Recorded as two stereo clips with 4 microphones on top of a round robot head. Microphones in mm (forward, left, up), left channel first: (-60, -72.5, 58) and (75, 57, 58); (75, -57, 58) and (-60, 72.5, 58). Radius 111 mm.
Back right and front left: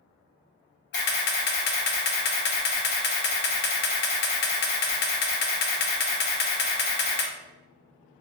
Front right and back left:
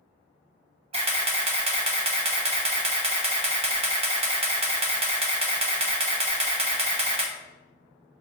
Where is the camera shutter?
165° right, 0.8 m.